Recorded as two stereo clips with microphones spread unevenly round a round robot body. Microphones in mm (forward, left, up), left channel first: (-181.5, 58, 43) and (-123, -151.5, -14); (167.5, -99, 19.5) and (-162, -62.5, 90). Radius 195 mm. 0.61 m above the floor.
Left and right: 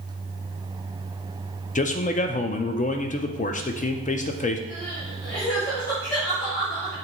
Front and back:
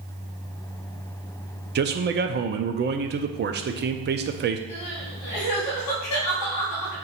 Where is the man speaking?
135° left, 0.6 m.